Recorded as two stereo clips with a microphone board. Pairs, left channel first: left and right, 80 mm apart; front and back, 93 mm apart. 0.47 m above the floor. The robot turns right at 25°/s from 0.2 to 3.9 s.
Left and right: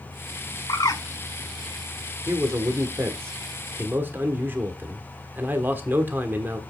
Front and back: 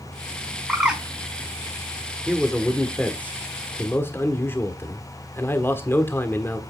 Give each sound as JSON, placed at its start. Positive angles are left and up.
{"t": 0.7, "sound": "a bird", "azimuth_deg": 95, "distance_m": 1.5}
{"t": 2.3, "sound": "a man speaking", "azimuth_deg": -90, "distance_m": 1.3}